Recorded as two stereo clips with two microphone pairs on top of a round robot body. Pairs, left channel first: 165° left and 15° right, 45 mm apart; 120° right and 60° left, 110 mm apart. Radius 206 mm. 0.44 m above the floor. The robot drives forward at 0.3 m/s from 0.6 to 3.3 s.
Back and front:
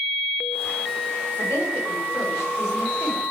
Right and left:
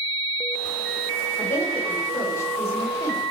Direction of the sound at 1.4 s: 175° left.